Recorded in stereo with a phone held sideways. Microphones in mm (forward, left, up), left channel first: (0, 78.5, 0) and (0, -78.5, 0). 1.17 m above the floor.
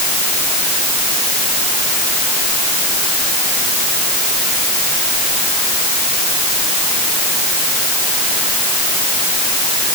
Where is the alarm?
I don't hear an alarm.